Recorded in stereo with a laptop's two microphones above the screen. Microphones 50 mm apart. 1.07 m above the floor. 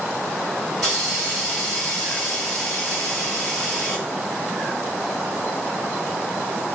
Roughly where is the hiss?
Centre.